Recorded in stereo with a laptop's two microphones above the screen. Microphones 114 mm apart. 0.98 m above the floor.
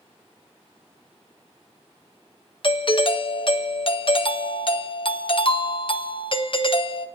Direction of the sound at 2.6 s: 50° left (ahead or behind).